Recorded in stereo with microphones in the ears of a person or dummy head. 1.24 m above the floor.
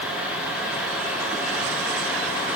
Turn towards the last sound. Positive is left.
No sound to turn to.